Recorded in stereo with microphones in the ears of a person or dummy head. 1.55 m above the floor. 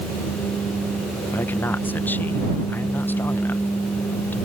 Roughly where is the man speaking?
Centre.